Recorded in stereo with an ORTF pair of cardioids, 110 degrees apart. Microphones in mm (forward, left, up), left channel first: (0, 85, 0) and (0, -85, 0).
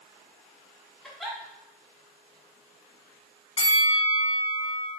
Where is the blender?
I don't hear a blender.